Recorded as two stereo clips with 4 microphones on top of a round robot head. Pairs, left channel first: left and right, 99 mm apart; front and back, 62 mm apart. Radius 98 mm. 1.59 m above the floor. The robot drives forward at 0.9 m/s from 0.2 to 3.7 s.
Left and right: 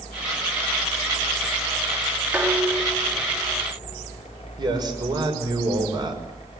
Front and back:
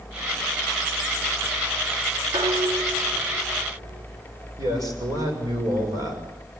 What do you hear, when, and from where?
2.3 s dishes clattering: 160° right, 1.9 m; by 4.0 s 170° right, 3 m
4.6 s a man speaking: 135° right, 6.5 m